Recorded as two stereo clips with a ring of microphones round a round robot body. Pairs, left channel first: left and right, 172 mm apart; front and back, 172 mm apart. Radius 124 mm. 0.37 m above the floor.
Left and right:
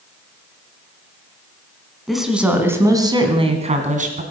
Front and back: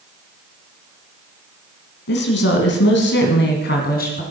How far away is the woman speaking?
About 3 m.